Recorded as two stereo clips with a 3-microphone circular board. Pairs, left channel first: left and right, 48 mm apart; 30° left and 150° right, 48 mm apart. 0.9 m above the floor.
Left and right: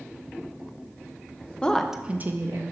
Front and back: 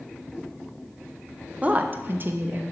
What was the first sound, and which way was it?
A woman speaking, 155° left.